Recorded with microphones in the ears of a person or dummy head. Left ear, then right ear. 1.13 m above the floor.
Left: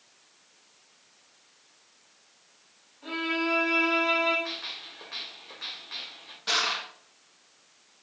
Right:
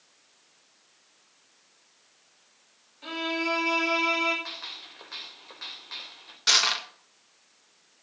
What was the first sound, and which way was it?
A violin, 85° right.